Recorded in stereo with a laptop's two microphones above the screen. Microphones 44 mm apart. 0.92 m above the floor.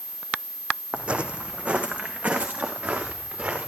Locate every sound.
0.9 s footsteps: 25° right (ahead or behind), 3 m; by 3.7 s 30° right (ahead or behind), 6.5 m